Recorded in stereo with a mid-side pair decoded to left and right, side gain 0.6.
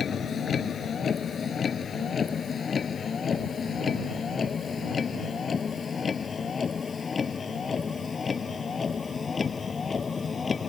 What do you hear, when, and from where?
0.0 s a vehicle: 40° left; by 10.7 s 30° left